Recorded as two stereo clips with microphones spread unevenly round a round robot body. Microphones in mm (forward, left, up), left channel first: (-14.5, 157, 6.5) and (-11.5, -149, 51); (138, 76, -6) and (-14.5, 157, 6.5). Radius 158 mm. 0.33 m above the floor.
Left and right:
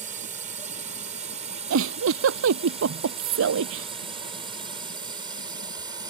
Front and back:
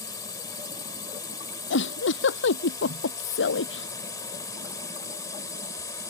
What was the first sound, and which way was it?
A drone, 45° right.